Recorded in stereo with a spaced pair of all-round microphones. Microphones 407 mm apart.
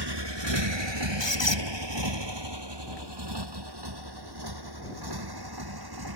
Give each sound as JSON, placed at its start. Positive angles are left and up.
{"t": 0.0, "sound": "a motorcycle", "side_deg": -65}
{"t": 1.2, "sound": "a squeak", "side_deg": 75}